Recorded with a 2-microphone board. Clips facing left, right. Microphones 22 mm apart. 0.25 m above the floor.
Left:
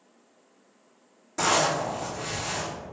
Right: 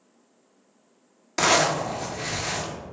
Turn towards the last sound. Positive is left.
turn(degrees=-80)